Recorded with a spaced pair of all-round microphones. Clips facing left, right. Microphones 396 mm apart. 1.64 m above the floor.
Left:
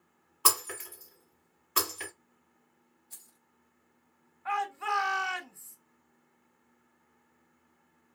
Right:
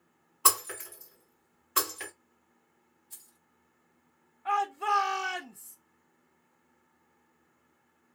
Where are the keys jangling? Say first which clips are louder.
Even; 45° right (ahead or behind), 1.2 m.